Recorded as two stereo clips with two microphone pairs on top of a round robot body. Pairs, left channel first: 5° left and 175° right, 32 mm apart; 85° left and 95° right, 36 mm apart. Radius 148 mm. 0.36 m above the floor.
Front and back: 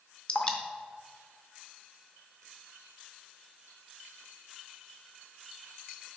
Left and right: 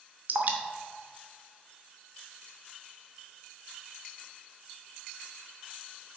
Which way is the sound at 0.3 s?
55° right.